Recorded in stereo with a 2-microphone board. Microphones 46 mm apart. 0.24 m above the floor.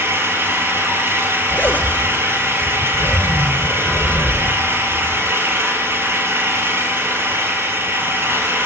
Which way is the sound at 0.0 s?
70° right (ahead or behind).